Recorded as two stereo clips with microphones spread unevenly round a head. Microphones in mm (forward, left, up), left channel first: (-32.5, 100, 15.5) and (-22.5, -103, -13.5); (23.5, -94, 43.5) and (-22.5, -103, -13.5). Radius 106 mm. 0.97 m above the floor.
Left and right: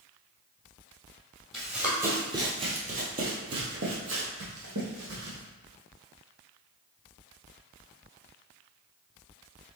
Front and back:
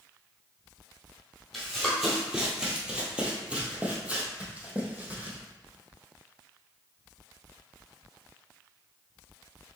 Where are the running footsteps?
10° left, 1.5 m; by 5.4 s 80° right, 2 m.